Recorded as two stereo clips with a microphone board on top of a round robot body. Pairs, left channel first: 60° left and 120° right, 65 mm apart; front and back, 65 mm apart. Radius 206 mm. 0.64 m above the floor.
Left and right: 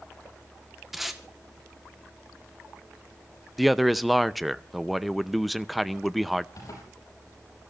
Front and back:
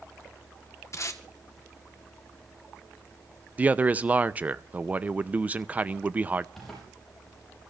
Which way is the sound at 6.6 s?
85° left.